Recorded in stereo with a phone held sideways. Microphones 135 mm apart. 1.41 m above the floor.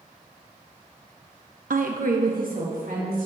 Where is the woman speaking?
70° right (ahead or behind), 0.7 m; by 3.3 s 80° right, 3 m.